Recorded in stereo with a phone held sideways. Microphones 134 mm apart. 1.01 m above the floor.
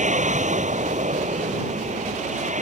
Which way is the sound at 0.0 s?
70° right (ahead or behind).